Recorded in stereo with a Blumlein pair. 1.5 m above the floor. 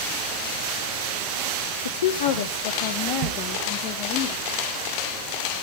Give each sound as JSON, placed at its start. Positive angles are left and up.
{"t": 1.9, "sound": "a woman speaking", "azimuth_deg": 70, "distance_m": 1.0}